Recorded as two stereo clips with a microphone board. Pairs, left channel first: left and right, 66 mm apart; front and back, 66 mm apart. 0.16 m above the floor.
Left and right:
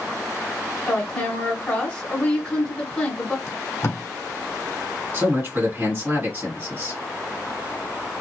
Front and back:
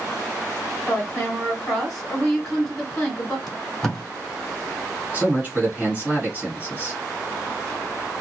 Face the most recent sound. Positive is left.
turn(degrees=-130)